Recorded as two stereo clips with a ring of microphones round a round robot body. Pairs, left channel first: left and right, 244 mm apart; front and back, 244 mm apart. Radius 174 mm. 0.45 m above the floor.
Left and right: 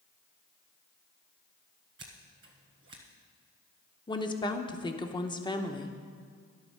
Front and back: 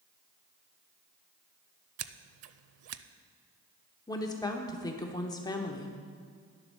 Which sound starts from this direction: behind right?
Scissors, at 2.0 s.